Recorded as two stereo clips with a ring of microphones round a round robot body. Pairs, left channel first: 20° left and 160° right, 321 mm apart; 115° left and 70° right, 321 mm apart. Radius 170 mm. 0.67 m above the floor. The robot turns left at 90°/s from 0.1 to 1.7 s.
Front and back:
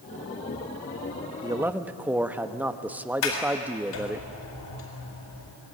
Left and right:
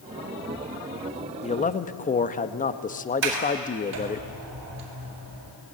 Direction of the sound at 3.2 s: 15° right.